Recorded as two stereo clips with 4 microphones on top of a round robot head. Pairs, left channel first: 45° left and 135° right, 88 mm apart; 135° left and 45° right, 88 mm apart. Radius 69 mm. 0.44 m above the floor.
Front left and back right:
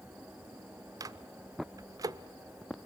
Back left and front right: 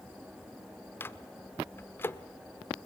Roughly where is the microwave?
Behind.